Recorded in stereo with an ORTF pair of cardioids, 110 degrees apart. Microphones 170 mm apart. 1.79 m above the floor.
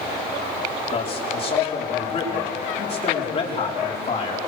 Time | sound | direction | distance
0.9 | a man speaking | 35° left | 5 m